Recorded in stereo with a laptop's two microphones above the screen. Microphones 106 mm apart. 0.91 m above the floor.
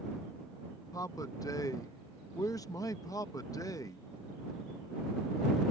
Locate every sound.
0.9 s a man speaking: 30° left (ahead or behind)